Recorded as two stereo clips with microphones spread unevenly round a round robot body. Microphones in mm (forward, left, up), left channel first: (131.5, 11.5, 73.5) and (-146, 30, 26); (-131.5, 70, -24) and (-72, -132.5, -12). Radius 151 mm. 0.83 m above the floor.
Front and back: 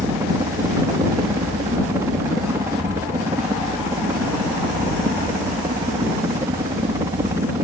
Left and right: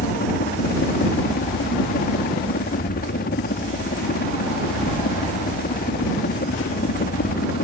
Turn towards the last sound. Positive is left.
turn(degrees=110)